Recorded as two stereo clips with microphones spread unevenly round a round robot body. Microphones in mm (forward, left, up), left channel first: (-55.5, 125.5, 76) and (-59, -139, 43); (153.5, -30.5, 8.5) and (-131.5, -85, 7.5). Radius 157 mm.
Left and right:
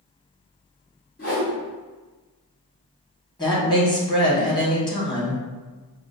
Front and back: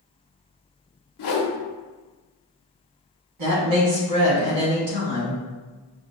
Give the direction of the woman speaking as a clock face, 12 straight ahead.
7 o'clock.